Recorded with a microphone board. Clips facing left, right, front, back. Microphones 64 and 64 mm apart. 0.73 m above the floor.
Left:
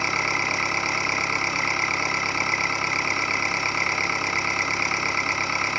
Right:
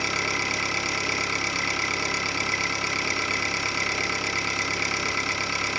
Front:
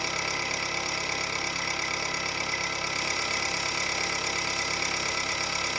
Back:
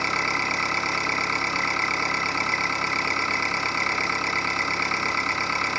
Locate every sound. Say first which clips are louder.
0.0 s an engine running: left 3 dB, back 6 dB; 145° left, 2 m